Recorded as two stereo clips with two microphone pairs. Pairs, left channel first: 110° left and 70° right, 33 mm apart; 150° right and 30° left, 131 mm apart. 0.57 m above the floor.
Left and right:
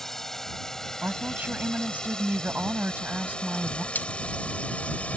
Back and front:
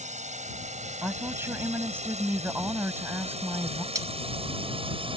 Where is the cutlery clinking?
95° left.